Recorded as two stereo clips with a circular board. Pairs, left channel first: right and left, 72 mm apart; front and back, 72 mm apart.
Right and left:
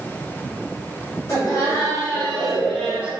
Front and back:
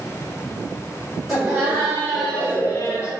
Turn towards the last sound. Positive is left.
turn(degrees=25)